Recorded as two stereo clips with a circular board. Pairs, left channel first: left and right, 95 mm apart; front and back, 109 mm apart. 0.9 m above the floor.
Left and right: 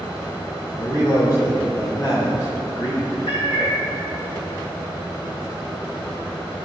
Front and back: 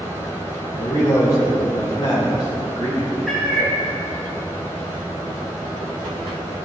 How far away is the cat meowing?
About 3.5 m.